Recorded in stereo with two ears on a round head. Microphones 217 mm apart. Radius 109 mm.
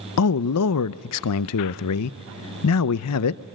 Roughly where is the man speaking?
Left.